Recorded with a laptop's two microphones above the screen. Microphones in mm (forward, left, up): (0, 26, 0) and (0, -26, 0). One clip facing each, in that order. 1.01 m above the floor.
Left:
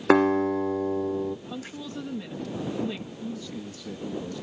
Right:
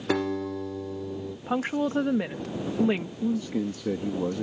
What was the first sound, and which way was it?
A guitar, 45° left (ahead or behind).